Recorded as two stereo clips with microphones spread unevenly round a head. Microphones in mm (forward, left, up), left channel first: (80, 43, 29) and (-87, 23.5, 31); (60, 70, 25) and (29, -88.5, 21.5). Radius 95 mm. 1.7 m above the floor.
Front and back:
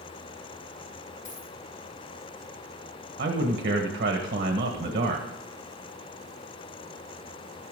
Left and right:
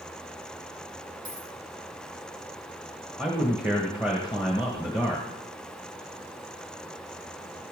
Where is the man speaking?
175° left, 1.4 m.